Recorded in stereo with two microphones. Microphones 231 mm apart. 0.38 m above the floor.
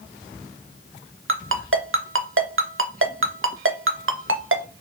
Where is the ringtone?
65° right (ahead or behind), 0.5 m.